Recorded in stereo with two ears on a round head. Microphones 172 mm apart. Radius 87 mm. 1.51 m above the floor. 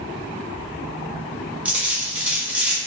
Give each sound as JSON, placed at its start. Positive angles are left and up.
{"t": 1.6, "sound": "a dropped coin", "side_deg": -5, "distance_m": 1.2}